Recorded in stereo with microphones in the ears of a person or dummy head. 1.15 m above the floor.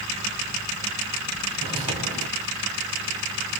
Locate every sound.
1.6 s footsteps: 20° right (ahead or behind), 1.7 m